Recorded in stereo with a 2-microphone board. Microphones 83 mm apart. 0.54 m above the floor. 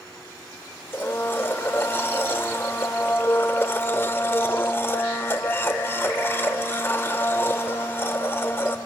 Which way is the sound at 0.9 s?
30° left (ahead or behind).